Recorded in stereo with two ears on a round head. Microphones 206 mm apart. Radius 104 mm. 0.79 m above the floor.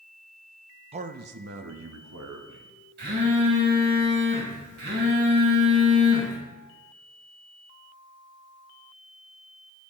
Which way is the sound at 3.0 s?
50° right (ahead or behind).